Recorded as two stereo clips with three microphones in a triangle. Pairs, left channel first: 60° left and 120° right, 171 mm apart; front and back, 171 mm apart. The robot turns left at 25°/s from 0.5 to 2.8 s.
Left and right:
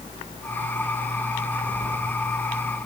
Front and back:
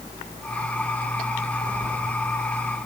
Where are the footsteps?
120° left, 5.5 m; by 2.0 s 110° left, 5.5 m.